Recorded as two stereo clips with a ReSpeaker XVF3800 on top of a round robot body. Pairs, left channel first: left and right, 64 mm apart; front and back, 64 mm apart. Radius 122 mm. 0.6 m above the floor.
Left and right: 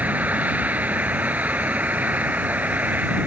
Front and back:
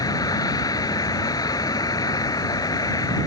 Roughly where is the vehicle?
Ahead right.